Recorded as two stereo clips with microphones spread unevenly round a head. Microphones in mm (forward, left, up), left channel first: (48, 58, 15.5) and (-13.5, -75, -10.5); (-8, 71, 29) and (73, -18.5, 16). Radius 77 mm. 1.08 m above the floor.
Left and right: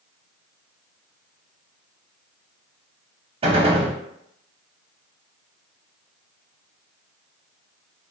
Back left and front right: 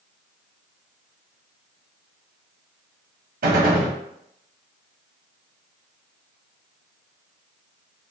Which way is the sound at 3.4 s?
60° right.